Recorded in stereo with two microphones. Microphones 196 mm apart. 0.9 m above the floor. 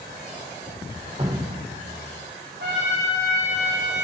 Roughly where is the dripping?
Right.